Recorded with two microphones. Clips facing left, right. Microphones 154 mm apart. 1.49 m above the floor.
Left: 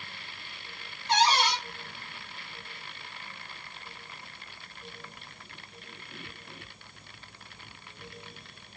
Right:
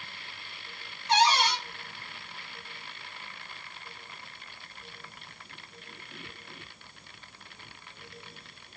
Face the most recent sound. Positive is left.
turn(degrees=30)  # may be behind; listen again after turning